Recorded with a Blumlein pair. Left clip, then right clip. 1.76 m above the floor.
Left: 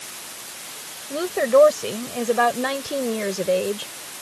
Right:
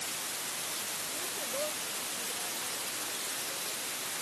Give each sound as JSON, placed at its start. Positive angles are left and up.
{"t": 1.1, "sound": "a woman speaking", "azimuth_deg": 40}